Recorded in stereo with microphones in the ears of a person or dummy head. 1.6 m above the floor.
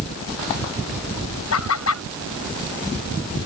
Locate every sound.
1.5 s laughter: 80° left